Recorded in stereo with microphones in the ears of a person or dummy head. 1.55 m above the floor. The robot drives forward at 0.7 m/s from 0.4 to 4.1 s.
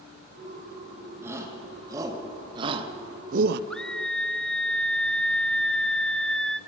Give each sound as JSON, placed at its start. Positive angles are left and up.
{"t": 1.2, "sound": "a shout", "side_deg": -15, "distance_m": 2.0}
{"t": 3.7, "sound": "a scream", "side_deg": 0, "distance_m": 0.9}